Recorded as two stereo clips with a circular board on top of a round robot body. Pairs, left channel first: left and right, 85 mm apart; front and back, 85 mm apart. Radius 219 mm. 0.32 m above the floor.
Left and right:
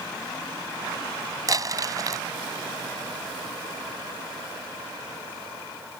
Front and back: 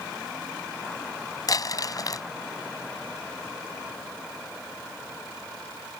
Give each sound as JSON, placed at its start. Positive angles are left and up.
{"t": 1.5, "sound": "crumpling", "azimuth_deg": -45}